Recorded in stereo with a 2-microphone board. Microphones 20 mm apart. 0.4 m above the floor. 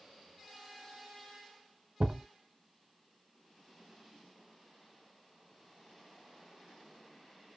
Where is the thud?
80° right, 0.6 m.